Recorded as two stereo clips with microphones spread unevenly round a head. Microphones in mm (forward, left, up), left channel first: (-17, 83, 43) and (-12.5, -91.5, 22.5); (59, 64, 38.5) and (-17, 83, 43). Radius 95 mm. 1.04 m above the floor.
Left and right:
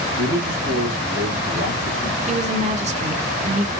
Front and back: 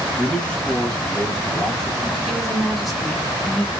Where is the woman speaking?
105° right, 0.8 m.